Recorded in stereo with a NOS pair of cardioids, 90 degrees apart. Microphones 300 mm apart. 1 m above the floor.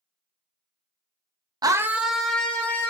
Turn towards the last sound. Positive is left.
turn(degrees=5)